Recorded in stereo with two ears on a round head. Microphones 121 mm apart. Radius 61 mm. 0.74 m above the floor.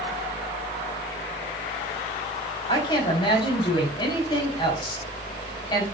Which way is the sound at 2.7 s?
35° left (ahead or behind).